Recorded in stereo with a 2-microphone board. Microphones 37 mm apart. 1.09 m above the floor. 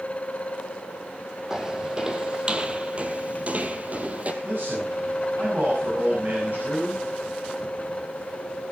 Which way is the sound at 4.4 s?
55° right (ahead or behind).